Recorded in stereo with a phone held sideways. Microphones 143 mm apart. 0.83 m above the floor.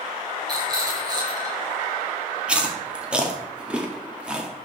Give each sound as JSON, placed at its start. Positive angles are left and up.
{"t": 0.5, "sound": "a rattle", "side_deg": -30, "distance_m": 5.0}
{"t": 2.5, "sound": "chewing", "side_deg": -10, "distance_m": 2.0}